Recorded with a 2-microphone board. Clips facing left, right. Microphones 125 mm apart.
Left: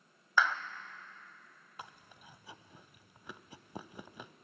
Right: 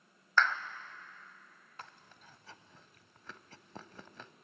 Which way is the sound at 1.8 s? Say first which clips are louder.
Left 2 dB; 15° left (ahead or behind).